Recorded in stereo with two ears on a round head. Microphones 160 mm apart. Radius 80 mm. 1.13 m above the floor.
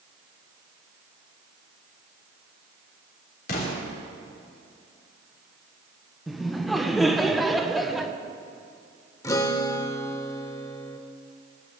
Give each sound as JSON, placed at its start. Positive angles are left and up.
{"t": 3.5, "sound": "an explosion", "side_deg": 50, "distance_m": 3.5}
{"t": 6.3, "sound": "laughter", "side_deg": 0, "distance_m": 0.9}
{"t": 9.2, "sound": "a guitar", "side_deg": 20, "distance_m": 0.8}